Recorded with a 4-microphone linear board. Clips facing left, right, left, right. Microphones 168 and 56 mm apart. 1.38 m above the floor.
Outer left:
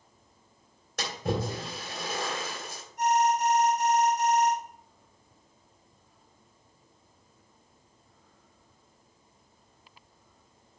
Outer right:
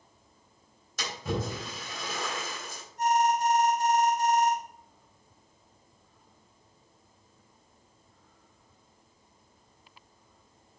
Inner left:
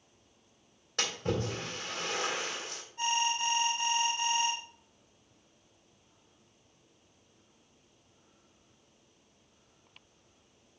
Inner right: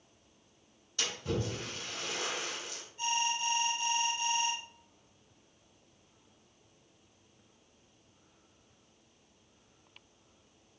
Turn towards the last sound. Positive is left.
turn(degrees=80)